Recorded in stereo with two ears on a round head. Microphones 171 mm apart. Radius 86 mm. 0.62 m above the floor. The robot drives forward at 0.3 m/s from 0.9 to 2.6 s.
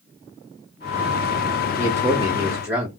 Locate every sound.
1.7 s a man speaking: 15° right (ahead or behind), 0.7 m